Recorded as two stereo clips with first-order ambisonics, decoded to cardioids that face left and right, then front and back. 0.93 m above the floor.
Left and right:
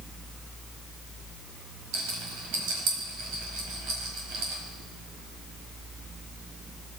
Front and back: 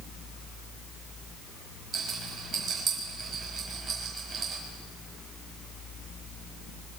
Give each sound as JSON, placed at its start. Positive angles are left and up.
{"t": 1.9, "sound": "a rattle", "azimuth_deg": -120, "distance_m": 5.0}